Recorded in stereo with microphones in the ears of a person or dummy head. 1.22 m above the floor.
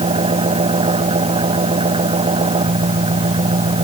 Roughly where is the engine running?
Right.